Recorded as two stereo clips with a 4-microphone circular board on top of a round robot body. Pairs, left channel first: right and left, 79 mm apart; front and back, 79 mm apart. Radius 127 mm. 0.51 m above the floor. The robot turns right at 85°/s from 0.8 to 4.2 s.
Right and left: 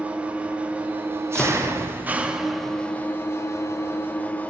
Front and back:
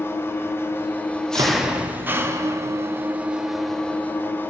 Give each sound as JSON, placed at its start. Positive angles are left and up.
{"t": 0.0, "sound": "an engine running", "azimuth_deg": 30, "distance_m": 0.9}
{"t": 1.4, "sound": "a door slam", "azimuth_deg": -165, "distance_m": 1.0}